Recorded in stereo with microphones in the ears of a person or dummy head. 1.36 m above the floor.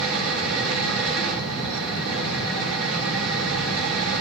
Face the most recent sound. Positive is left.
turn(degrees=-90)